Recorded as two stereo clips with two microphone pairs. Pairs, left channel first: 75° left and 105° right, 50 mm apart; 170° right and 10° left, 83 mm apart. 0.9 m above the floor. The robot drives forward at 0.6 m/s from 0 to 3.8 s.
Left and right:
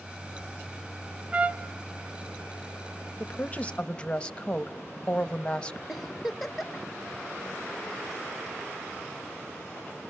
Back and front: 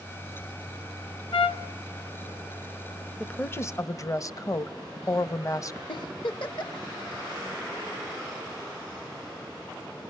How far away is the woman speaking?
About 0.5 m.